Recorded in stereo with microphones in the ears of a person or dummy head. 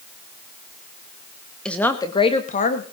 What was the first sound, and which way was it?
A woman speaking, 5° left (ahead or behind).